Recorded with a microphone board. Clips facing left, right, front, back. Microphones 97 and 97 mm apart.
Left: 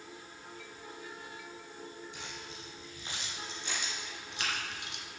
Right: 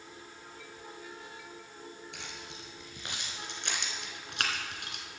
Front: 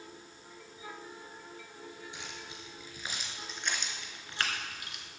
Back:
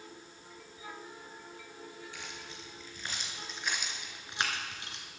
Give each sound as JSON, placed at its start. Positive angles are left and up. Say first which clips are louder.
{"t": 2.1, "sound": "keys jangling", "louder": "even, even", "azimuth_deg": -70, "distance_m": 3.0}